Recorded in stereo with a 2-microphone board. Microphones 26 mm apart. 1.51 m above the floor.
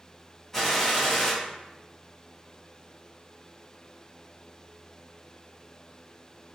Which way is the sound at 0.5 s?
10° left (ahead or behind).